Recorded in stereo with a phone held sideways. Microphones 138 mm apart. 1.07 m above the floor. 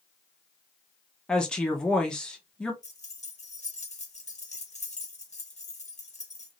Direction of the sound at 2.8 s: 55° left (ahead or behind).